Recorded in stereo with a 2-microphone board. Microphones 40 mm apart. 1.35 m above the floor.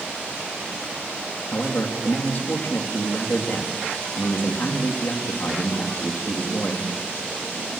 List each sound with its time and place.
1.5 s a man speaking: 55° left (ahead or behind), 2.5 m